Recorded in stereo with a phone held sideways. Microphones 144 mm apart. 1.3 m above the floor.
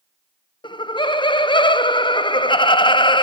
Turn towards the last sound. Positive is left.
turn(degrees=35)  # may be behind; listen again after turning